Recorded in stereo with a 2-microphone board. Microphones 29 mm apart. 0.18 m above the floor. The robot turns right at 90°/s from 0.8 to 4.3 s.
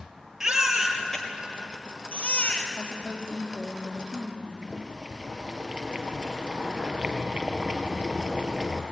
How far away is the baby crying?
About 3 m.